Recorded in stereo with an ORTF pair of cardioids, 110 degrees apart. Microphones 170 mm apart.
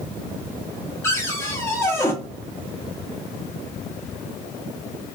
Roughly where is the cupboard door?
Ahead.